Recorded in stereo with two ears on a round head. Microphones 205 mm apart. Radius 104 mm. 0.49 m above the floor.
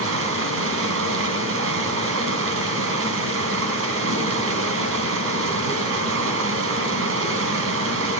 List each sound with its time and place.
0.0 s running water: 65° right (ahead or behind), 3.5 m